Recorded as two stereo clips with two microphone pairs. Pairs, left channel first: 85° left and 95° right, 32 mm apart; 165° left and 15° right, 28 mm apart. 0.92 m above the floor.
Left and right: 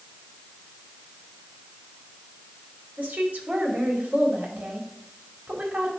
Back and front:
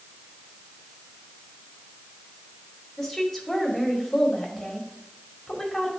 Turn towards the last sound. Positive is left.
turn(degrees=-125)